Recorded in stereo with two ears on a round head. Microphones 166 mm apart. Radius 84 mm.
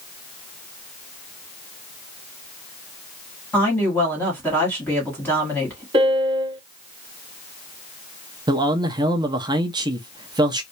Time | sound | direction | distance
3.5 | a woman speaking | 10° left (ahead or behind) | 1.3 m
5.9 | a piano | 25° right (ahead or behind) | 1.1 m
8.5 | a man speaking | 25° right (ahead or behind) | 0.6 m